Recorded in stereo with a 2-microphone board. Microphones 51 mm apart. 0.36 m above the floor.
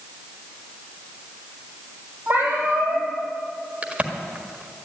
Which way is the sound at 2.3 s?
40° right (ahead or behind).